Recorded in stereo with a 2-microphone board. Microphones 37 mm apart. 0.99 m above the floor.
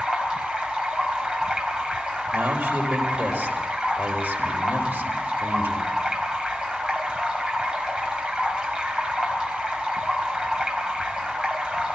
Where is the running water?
25° right (ahead or behind), 4 m.